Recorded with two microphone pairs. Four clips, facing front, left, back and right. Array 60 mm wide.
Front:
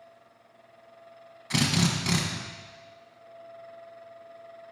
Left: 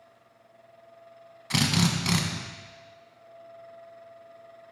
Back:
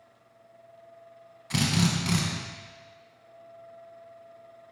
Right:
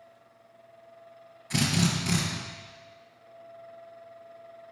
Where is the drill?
75° left, 1.2 m.